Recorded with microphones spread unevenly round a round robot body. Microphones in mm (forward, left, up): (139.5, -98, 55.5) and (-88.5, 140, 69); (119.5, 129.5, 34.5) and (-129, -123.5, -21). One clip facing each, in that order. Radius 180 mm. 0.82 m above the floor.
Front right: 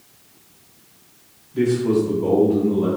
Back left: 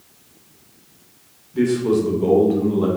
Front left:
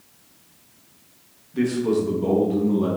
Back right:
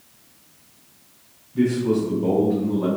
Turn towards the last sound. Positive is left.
turn(degrees=135)